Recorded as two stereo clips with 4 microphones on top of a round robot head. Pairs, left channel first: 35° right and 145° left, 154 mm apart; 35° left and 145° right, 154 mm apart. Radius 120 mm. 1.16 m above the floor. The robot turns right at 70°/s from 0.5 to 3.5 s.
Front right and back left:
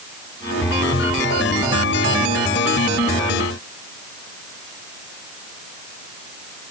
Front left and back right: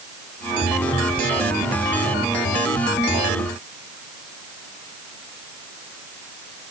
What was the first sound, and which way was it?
Only background noise.